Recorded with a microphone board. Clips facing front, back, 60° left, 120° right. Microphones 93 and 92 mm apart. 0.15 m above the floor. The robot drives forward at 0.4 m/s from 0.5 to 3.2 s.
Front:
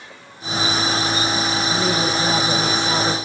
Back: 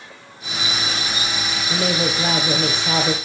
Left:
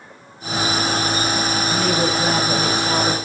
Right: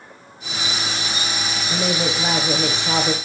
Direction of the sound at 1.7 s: 175° left.